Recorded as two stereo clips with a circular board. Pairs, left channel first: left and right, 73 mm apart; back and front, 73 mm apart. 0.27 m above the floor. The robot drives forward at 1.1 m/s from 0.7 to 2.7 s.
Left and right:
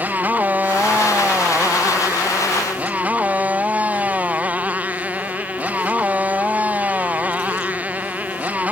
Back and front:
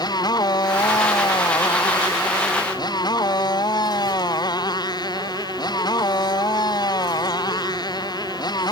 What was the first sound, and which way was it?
A motorcycle, 160° right.